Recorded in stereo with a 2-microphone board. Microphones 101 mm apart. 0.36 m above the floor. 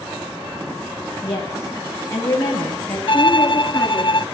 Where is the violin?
60° left (ahead or behind), 0.5 m.